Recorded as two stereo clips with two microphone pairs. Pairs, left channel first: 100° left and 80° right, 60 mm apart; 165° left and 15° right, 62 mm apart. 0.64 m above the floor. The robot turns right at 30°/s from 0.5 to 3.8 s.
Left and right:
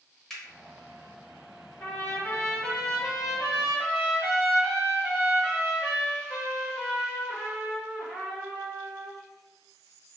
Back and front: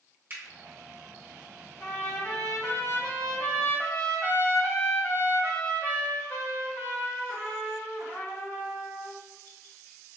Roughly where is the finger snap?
Ahead left.